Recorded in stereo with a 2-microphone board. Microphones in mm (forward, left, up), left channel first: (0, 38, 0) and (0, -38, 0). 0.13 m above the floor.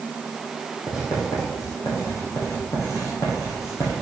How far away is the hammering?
No hammering in this recording.